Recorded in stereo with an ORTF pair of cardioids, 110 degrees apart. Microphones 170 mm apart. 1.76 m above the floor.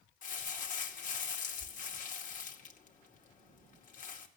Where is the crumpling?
50° left, 2.5 m.